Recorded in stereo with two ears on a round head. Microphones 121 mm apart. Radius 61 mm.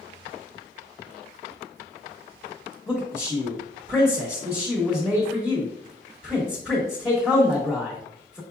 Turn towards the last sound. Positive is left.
turn(degrees=0)  # may be behind; listen again after turning